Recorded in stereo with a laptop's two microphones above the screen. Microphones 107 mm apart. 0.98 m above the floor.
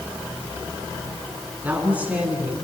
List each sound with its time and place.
1.6 s a woman speaking: 15° right (ahead or behind), 9.5 m